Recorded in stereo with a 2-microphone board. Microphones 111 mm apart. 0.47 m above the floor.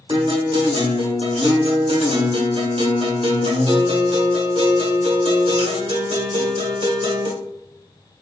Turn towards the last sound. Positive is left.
turn(degrees=-60)  # may be behind; listen again after turning